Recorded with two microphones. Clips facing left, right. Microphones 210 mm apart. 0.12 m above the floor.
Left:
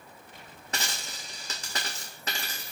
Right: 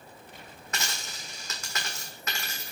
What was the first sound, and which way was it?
A dropped coin, 35° left (ahead or behind).